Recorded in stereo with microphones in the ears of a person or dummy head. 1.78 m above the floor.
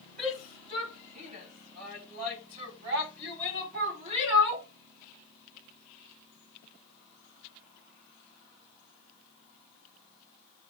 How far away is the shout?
About 6 m.